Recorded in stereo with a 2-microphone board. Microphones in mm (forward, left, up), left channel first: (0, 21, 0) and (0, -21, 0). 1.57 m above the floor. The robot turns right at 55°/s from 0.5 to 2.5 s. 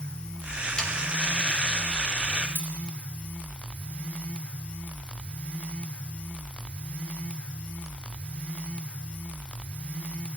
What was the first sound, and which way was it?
Sawing, 20° left (ahead or behind).